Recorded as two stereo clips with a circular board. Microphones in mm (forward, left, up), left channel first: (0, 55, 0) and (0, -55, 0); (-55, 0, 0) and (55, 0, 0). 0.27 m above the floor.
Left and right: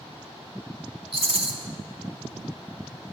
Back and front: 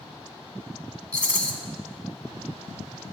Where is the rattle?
105° right, 0.6 m.